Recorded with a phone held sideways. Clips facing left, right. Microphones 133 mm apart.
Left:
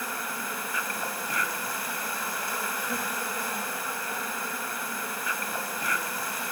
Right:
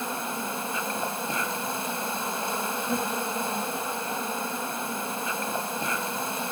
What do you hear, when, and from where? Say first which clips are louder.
0.0 s an insect: right 4 dB; 25° right (ahead or behind), 2 m